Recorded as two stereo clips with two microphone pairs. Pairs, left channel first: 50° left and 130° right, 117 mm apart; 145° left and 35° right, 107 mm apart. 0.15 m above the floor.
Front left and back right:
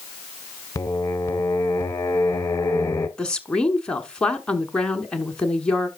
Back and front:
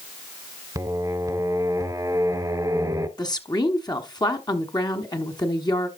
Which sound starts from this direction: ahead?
Singing, at 0.8 s.